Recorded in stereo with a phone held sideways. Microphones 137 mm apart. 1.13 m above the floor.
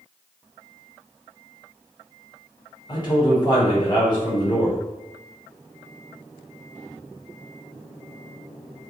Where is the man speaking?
30° left (ahead or behind), 1.1 m.